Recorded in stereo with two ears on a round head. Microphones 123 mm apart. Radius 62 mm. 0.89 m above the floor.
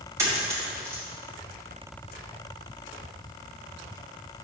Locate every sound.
0.2 s a dropped coin: 20° right (ahead or behind), 2 m